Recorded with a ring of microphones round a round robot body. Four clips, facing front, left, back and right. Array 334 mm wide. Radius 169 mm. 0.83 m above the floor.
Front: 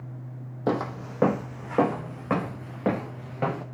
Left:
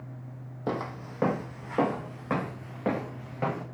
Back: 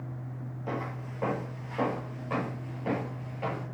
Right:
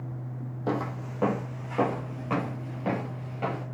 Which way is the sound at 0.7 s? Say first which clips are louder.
Right 2 dB, front 9 dB; straight ahead.